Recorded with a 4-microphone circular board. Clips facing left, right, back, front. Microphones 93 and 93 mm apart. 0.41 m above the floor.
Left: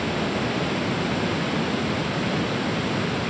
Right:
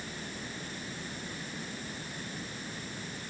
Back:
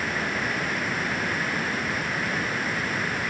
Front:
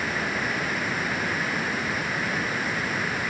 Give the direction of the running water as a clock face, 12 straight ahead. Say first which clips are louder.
Left 17 dB, even; 9 o'clock.